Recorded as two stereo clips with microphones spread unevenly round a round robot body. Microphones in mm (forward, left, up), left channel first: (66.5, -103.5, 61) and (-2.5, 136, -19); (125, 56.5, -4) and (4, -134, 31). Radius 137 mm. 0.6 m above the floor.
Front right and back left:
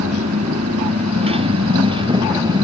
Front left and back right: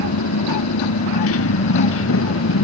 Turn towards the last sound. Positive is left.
turn(degrees=30)